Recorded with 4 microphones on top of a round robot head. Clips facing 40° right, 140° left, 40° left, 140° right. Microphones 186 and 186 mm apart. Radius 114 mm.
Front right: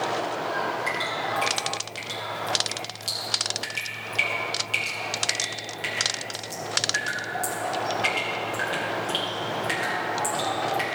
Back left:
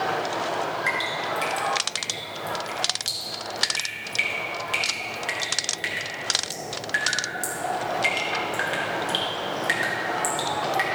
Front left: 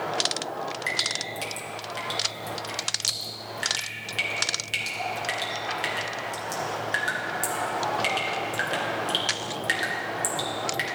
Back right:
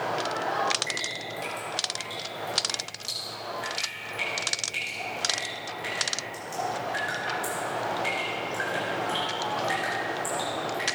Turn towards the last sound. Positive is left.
turn(degrees=60)